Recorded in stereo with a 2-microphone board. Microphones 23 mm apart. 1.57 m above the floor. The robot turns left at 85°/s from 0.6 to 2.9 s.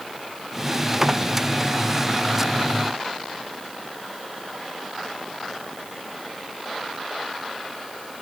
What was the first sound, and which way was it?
Only background noise.